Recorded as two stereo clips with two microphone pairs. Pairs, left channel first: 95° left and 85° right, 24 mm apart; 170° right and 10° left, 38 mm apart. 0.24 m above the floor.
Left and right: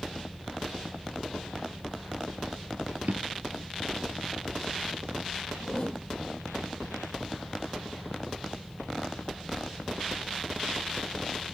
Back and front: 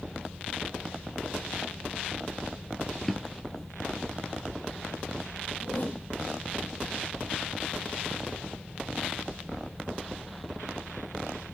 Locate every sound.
3.0 s a drawer: 90° right, 1.7 m
5.6 s a whoosh: 150° left, 4.5 m